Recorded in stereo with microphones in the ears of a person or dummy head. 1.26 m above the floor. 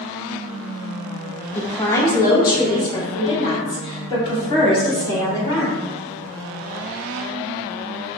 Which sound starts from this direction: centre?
A woman speaking, at 1.6 s.